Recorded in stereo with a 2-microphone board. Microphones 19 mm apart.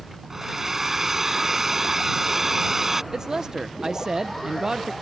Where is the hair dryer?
20° right (ahead or behind).